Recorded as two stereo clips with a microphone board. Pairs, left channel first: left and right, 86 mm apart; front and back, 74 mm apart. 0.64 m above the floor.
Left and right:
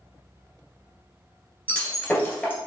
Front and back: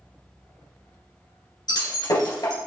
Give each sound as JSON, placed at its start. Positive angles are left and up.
{"t": 1.7, "sound": "breaking glass", "azimuth_deg": 15, "distance_m": 1.9}